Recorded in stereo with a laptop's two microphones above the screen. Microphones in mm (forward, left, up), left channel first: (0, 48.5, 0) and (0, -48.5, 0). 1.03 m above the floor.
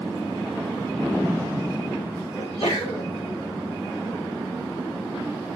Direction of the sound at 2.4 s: 70° left (ahead or behind).